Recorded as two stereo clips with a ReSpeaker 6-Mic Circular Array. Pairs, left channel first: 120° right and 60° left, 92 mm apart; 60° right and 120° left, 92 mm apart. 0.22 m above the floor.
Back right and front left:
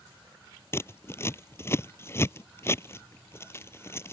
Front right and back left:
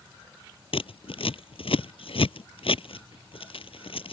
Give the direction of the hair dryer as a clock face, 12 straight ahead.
No hair dryer in this recording.